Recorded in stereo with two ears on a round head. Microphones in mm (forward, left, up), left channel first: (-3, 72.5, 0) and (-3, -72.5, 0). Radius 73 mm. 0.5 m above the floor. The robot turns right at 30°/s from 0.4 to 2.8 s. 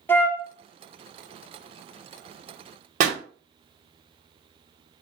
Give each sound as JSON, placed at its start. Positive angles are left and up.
{"t": 0.1, "sound": "a flute", "side_deg": 10, "distance_m": 0.6}
{"t": 3.0, "sound": "a pop", "side_deg": -45, "distance_m": 0.8}